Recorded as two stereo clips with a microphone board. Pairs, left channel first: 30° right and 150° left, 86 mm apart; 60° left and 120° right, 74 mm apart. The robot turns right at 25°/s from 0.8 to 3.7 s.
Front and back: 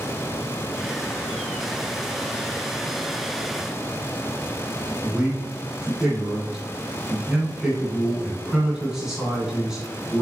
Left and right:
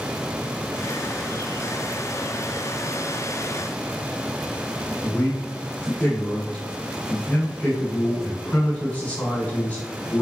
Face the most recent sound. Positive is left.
turn(degrees=80)